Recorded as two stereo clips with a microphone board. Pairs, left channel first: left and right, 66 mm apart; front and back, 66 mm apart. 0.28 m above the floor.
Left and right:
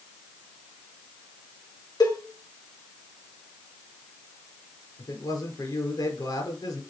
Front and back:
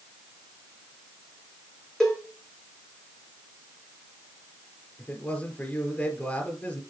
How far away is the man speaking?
About 4.5 m.